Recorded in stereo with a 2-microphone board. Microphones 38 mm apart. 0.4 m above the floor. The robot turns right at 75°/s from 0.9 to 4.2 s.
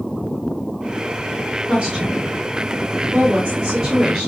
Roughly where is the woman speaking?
Centre.